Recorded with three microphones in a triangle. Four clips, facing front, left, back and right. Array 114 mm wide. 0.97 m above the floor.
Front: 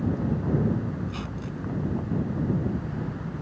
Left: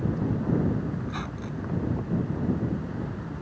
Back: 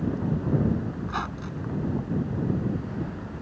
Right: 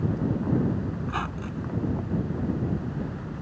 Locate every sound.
1.0 s a squeak: 140° right